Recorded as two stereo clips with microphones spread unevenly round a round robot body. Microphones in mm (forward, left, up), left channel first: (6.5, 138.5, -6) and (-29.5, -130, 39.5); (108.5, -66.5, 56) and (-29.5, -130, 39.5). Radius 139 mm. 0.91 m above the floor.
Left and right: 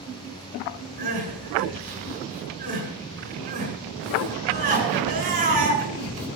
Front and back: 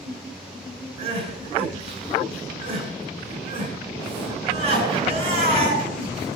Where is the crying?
160° right, 6.5 m.